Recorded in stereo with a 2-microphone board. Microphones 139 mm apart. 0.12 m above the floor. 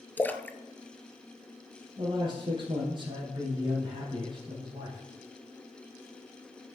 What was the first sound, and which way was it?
A splash, 15° left (ahead or behind).